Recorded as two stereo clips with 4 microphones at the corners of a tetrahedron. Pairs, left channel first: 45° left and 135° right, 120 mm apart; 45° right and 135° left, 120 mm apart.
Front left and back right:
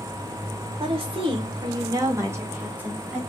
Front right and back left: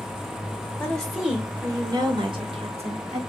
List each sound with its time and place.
0.8 s a woman speaking: 120° right, 0.9 m; by 3.2 s 145° left, 1.5 m